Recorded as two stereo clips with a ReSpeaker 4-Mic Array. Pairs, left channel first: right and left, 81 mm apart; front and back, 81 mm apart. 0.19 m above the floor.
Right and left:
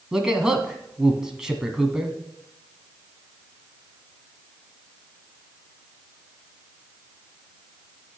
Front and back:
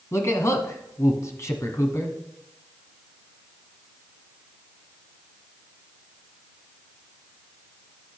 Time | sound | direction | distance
0.1 | a man speaking | 10° left | 1.4 m